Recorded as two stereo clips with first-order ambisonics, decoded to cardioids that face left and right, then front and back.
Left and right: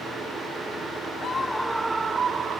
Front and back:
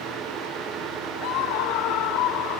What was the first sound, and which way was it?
A scream, 25° left.